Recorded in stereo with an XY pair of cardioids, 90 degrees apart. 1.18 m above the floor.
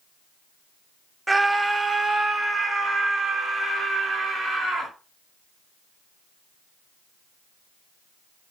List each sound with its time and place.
1.3 s a scream: 15° right, 0.6 m; by 4.9 s 55° right, 2.5 m